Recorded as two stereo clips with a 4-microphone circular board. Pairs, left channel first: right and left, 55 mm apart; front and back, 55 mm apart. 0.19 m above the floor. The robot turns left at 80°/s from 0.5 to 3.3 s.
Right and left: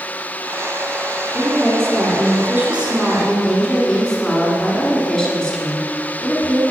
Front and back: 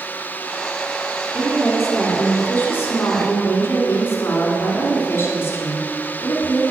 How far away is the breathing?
No breathing in this recording.